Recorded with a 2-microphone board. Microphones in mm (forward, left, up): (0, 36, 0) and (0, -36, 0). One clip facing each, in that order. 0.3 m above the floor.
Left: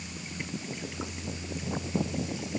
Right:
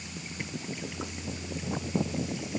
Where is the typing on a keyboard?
I don't hear typing on a keyboard.